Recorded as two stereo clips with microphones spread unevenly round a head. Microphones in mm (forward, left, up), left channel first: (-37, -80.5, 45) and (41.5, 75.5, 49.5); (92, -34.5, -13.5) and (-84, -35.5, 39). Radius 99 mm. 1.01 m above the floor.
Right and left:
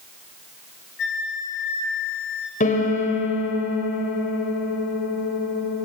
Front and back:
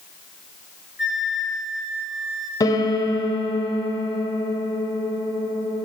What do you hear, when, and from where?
1.0 s a flute: 95° right, 4 m
2.6 s a piano: 70° right, 2.5 m